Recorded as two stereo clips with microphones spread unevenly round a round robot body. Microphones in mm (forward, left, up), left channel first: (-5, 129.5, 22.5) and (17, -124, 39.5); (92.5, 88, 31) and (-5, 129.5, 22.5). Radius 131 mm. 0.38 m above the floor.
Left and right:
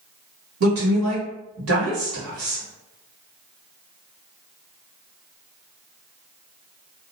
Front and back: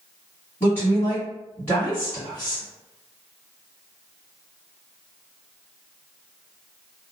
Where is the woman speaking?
95° right, 1.6 m.